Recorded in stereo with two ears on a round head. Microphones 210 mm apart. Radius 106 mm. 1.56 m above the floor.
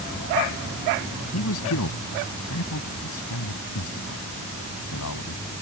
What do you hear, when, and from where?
1.3 s a man speaking: 65° left (ahead or behind)